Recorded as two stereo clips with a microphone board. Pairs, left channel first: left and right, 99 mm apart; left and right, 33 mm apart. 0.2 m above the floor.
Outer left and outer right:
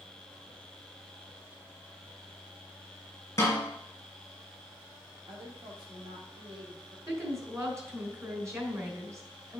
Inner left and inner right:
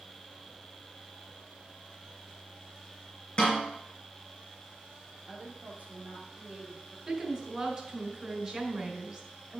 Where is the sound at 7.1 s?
35° right (ahead or behind), 3 m.